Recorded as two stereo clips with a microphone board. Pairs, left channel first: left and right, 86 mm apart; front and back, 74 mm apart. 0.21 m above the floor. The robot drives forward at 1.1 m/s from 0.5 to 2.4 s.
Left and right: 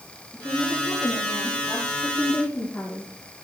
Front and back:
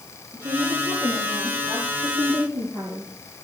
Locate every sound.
0.3 s a woman speaking: 140° left, 4.5 m; by 3.1 s 155° left, 6 m